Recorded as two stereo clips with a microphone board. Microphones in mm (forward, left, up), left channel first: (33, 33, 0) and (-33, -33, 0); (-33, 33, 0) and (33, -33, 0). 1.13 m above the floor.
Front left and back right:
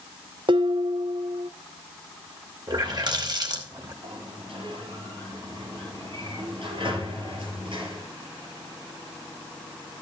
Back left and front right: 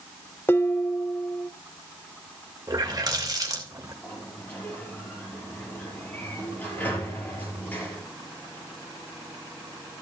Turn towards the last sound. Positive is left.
turn(degrees=-155)